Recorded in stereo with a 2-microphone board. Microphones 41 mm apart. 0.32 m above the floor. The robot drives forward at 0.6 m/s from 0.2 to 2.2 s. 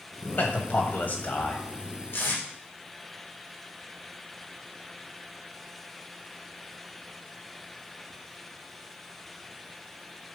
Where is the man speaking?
50° left (ahead or behind), 1.7 m; by 1.6 s 45° left (ahead or behind), 1.7 m.